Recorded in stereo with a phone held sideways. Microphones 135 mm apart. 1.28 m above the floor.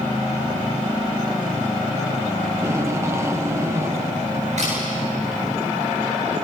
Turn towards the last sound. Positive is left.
turn(degrees=-60)  # may be behind; listen again after turning